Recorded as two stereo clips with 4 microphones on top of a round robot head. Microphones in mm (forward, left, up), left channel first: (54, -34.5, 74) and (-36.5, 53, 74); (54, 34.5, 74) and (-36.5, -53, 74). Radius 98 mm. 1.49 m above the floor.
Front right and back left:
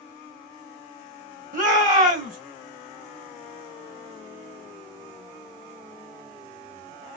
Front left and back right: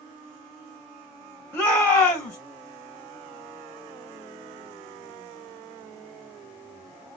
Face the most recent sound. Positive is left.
turn(degrees=120)